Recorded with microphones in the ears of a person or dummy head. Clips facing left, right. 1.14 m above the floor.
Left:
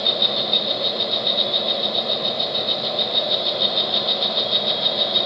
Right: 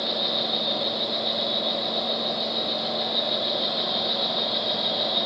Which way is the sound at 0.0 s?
30° left (ahead or behind).